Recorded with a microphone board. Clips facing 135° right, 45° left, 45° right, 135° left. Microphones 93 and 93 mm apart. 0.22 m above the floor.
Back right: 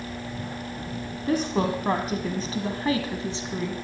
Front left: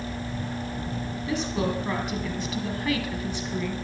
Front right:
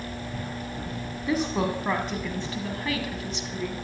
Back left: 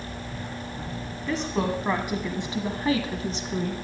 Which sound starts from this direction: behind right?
A woman speaking, at 1.3 s.